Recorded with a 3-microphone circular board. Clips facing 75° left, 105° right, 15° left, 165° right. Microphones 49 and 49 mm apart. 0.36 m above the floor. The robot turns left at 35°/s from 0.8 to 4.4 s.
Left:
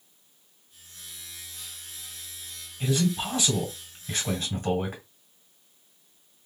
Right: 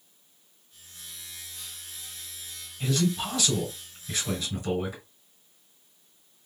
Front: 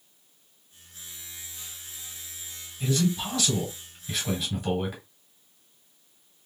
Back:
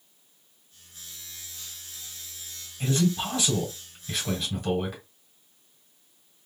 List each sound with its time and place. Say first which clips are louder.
2.8 s a man speaking: left 1 dB, back 1 dB; 155° left, 2 m; by 5.0 s 100° left, 2 m